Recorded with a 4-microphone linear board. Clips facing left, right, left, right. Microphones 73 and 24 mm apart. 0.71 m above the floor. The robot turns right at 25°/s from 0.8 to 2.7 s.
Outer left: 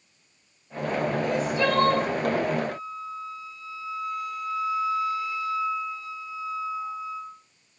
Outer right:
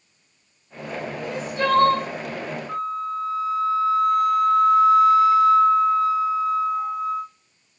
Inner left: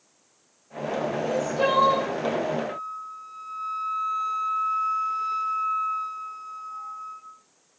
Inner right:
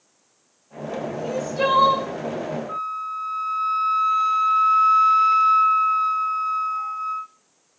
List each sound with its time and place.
1.2 s crying: 25° right (ahead or behind), 6 m; by 2.1 s 50° right (ahead or behind), 6 m
2.7 s a flute: 70° right (ahead or behind), 0.7 m